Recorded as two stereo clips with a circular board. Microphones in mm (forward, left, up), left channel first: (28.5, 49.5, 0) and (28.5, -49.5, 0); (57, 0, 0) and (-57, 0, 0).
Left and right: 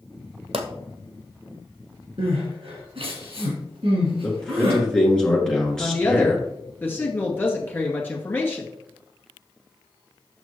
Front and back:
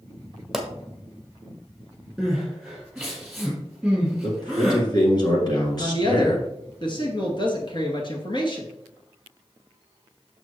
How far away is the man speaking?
About 2 m.